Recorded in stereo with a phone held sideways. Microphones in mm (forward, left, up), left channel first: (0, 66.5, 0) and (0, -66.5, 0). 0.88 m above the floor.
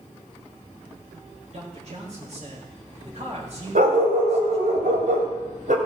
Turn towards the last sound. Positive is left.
turn(degrees=-85)